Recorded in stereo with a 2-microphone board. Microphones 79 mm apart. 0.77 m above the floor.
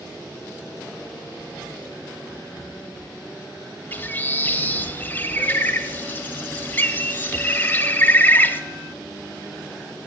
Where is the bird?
25° left (ahead or behind), 0.7 m.